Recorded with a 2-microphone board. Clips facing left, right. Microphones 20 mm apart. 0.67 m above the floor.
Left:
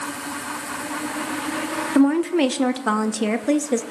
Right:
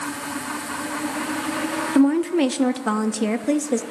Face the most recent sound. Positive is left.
turn(degrees=15)  # may be behind; listen again after turning